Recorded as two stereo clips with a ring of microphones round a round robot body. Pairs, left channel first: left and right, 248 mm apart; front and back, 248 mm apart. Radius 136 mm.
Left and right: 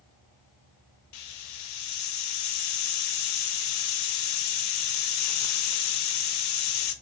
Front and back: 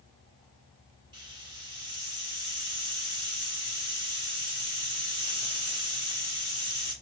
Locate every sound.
1.1 s a hiss: 105° left, 0.5 m